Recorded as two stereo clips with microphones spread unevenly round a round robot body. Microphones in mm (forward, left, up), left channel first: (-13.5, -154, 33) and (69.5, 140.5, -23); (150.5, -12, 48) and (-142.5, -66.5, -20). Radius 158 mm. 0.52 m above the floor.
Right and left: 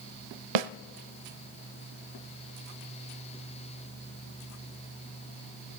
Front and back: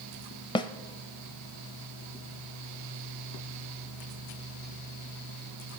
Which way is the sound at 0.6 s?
85° left.